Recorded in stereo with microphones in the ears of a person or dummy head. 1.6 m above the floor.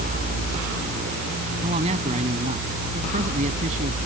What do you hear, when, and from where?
1.6 s a man speaking: 30° right (ahead or behind); by 4.0 s 35° right (ahead or behind)